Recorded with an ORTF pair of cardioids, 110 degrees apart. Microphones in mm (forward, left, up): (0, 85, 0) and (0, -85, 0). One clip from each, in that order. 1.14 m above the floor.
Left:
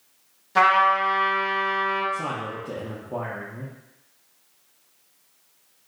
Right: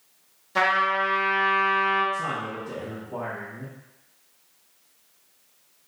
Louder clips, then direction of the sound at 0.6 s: Left 4 dB; 5° left.